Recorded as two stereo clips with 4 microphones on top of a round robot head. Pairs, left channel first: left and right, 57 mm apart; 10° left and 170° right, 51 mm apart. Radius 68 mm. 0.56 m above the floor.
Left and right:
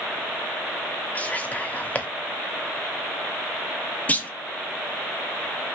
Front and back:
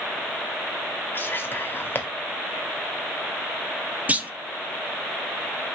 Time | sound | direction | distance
1.1 | whispering | 35° left | 1.2 m
4.1 | a clunk | 140° left | 0.6 m